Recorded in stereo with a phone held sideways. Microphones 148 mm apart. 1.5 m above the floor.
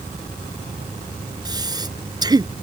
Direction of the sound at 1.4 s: 25° right (ahead or behind).